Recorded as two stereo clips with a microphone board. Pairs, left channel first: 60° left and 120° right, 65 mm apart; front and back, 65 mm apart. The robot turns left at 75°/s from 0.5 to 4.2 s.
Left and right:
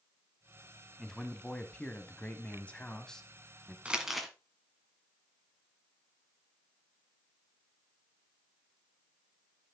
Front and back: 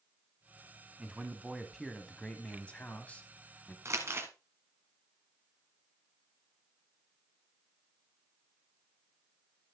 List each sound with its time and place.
1.0 s a man speaking: 155° left, 1.0 m; by 3.8 s 55° right, 1.0 m
3.9 s crumpling: 175° left, 1.7 m; by 4.3 s 150° left, 1.7 m